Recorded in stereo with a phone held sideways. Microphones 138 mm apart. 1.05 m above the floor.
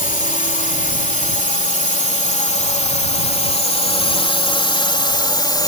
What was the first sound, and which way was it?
A drone, 70° left (ahead or behind).